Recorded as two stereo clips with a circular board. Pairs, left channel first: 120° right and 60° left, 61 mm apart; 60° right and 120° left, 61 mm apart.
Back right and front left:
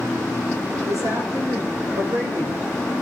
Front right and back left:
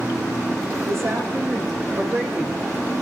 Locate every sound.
0.8 s a woman speaking: 80° left, 7.5 m; by 2.8 s 65° left, 5.5 m